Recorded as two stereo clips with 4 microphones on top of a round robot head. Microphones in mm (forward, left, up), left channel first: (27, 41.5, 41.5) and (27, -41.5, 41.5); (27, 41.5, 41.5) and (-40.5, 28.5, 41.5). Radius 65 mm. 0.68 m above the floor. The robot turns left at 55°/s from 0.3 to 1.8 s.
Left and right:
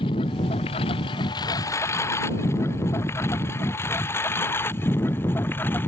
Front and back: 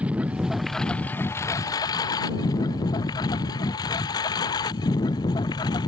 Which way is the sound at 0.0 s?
120° left.